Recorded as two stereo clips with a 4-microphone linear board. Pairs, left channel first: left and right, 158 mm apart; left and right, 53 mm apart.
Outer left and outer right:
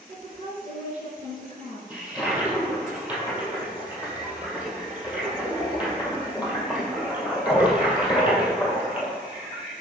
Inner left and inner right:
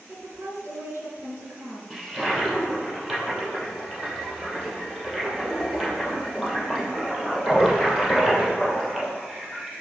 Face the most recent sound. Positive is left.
turn(degrees=-10)  # may be behind; listen again after turning